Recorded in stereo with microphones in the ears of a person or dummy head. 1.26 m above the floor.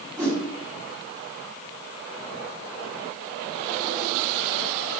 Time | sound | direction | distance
0.2 | a whoosh | 5° left (ahead or behind) | 1.3 m